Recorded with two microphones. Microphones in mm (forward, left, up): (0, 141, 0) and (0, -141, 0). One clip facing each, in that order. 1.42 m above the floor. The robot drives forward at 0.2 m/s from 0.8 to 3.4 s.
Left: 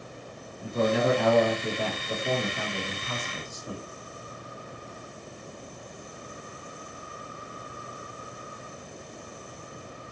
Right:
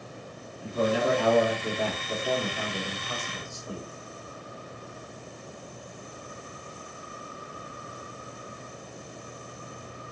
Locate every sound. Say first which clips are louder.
0.6 s a man speaking: left 1 dB; 55° left (ahead or behind), 1.4 m; by 3.8 s 40° left (ahead or behind), 1.7 m